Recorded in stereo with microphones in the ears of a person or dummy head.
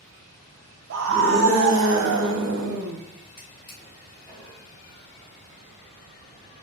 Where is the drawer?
15° left (ahead or behind), 1.2 m.